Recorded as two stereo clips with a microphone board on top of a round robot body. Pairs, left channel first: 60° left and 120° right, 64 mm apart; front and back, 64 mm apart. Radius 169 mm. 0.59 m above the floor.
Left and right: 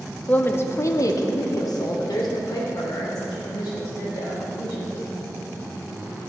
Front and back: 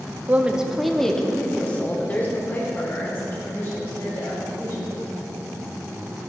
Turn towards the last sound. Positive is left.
turn(degrees=50)